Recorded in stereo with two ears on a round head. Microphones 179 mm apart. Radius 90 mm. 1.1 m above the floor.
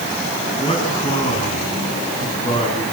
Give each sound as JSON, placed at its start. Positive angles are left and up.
{"t": 0.6, "sound": "a man speaking", "side_deg": 25, "distance_m": 10.0}